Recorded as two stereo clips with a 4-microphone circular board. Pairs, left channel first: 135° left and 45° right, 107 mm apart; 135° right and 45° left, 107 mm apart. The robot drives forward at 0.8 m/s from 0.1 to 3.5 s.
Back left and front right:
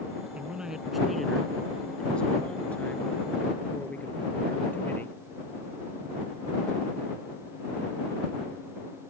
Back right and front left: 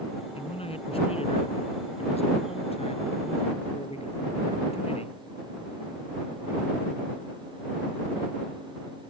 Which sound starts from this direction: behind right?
A man speaking, at 0.3 s.